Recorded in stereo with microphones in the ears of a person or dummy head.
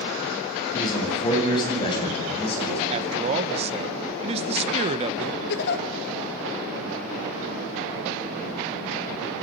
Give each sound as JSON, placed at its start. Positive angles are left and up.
{"t": 0.7, "sound": "a man speaking", "side_deg": 25, "distance_m": 9.5}
{"t": 2.9, "sound": "a man speaking", "side_deg": -35, "distance_m": 1.4}
{"t": 5.5, "sound": "a giggle", "side_deg": 60, "distance_m": 2.0}